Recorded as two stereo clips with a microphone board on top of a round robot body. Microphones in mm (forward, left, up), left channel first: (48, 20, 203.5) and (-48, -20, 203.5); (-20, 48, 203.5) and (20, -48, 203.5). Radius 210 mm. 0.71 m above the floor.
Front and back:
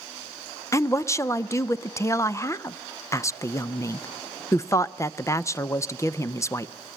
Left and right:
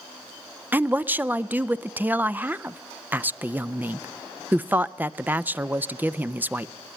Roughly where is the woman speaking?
Ahead.